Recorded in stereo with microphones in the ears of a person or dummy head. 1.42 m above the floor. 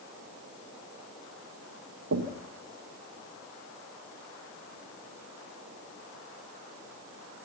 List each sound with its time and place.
2.1 s knocking: 85° right, 1.7 m